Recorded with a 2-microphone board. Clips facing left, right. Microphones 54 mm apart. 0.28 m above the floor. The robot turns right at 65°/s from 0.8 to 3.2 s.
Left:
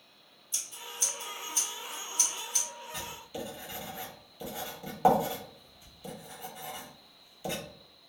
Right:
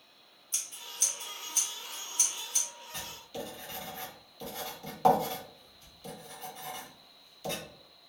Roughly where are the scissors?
Right.